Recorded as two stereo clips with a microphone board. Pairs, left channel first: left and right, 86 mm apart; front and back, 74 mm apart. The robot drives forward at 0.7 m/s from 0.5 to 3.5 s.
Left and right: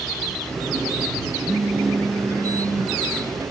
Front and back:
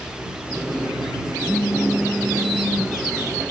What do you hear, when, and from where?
1.5 s a phone buzzing: 10° right, 1.0 m; by 2.9 s 165° right, 0.9 m